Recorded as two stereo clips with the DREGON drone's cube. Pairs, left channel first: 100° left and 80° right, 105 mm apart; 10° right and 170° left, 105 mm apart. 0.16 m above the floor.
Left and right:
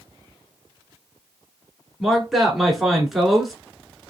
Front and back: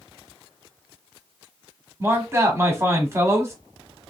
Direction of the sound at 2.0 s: 165° right.